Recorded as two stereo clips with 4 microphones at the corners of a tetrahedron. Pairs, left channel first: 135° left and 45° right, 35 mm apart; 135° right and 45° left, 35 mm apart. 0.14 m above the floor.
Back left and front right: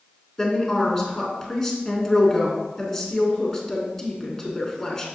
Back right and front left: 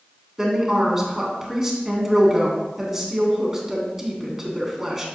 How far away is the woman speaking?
About 1.5 m.